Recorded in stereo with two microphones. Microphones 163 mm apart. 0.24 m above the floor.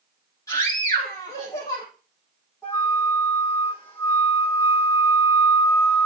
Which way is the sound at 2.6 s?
15° left (ahead or behind).